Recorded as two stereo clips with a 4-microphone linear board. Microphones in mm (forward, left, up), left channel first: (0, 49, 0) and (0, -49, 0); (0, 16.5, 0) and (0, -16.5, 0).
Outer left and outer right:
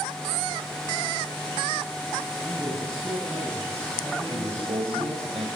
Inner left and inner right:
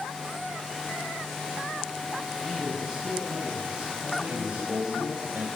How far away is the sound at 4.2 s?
About 4.5 m.